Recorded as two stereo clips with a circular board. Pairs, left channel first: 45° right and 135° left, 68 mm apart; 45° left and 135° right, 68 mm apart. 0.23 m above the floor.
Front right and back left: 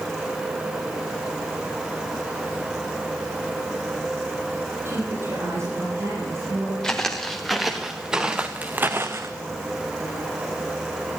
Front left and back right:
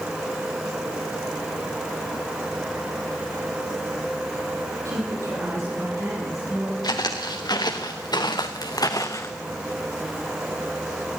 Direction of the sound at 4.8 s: 175° right.